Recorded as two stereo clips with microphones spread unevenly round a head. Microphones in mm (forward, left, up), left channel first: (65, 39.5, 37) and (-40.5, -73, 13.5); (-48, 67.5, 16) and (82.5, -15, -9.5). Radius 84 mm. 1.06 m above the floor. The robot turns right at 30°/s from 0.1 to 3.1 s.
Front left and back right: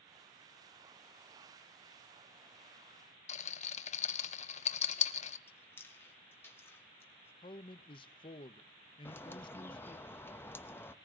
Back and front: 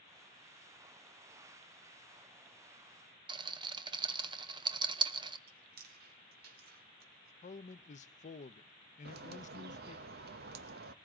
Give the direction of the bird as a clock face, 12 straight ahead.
1 o'clock.